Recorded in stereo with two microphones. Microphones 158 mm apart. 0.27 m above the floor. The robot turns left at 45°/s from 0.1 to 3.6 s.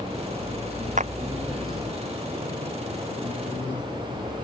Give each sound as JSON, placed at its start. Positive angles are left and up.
{"t": 1.0, "sound": "a clap", "side_deg": -50}